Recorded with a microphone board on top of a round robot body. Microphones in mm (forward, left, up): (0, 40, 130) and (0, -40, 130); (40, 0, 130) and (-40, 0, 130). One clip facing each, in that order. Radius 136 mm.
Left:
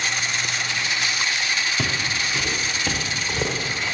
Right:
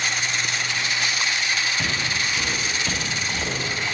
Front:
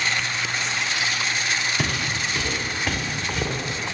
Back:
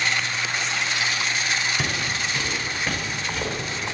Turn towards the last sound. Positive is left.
turn(degrees=90)